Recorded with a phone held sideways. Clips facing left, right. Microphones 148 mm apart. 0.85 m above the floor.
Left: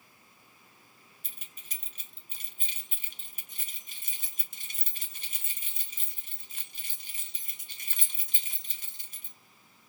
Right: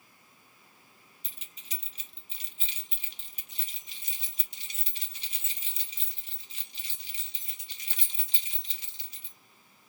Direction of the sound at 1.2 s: 50° left (ahead or behind).